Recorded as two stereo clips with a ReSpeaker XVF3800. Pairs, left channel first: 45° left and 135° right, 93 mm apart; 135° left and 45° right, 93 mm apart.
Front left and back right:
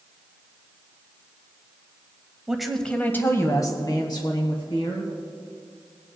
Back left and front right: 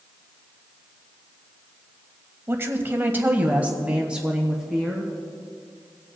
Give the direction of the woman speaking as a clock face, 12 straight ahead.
2 o'clock.